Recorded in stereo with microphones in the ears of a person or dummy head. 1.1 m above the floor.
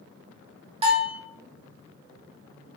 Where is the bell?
35° right (ahead or behind), 1.5 m.